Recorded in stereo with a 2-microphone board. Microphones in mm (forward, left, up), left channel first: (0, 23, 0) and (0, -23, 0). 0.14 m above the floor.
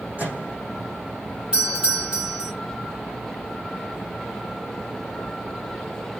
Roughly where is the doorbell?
Right.